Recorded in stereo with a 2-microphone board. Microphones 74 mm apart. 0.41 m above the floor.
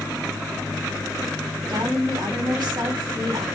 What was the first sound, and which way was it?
A woman speaking, 65° right (ahead or behind).